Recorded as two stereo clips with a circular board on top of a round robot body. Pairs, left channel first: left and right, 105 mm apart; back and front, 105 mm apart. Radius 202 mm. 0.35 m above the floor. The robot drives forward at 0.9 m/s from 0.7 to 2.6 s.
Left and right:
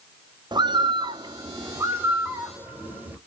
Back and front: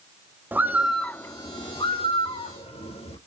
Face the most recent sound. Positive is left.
turn(degrees=-160)